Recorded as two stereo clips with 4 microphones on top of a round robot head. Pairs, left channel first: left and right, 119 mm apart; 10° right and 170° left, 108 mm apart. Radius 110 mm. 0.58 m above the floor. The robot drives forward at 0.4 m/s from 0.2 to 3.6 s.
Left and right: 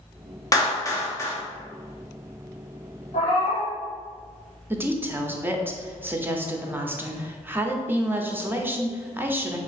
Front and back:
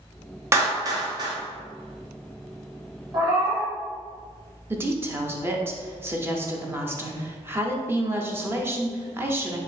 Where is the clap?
125° left, 0.9 m; by 1.4 s 145° left, 1.1 m.